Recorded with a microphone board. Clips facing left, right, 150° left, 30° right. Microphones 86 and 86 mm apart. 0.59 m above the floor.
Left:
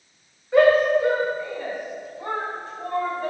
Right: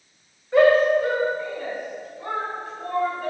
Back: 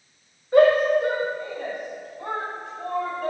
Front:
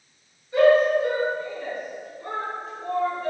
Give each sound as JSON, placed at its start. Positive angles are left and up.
{"t": 0.5, "sound": "a shout", "azimuth_deg": 180, "distance_m": 2.5}